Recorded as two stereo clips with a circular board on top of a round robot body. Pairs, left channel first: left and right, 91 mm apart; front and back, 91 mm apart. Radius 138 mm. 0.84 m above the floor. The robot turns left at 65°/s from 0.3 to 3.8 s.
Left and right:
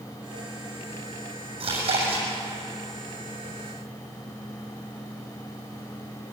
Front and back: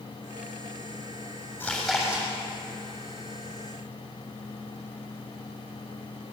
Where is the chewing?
75° right, 7.5 m; by 2.3 s 115° right, 7.5 m.